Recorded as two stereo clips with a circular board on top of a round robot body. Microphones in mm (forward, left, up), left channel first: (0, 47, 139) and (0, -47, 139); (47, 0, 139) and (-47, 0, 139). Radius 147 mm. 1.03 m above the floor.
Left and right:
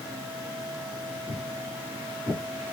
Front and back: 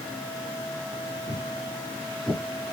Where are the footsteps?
140° left, 1.4 m; by 2.4 s 110° right, 1.6 m.